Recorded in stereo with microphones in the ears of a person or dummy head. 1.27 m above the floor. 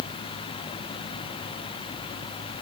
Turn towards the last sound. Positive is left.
No sound to turn to.